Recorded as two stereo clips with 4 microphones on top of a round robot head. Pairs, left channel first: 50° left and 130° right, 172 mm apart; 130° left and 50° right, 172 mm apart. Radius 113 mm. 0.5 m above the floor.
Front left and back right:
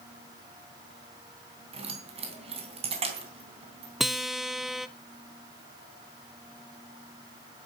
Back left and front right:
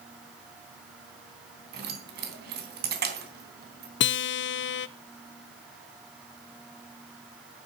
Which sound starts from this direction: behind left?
A guitar, at 4.0 s.